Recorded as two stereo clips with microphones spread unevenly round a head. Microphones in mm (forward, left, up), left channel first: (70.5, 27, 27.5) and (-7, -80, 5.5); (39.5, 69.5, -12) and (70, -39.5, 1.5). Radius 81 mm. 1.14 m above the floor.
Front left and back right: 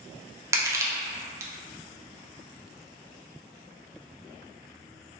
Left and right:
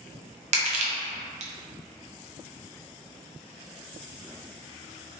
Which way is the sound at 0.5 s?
55° right.